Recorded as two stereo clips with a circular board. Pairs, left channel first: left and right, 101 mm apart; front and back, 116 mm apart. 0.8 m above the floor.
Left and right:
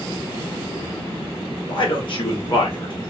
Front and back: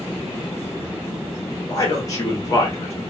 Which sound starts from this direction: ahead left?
A man speaking, at 1.7 s.